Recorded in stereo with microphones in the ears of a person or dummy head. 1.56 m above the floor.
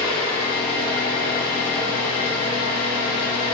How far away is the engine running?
About 1.8 m.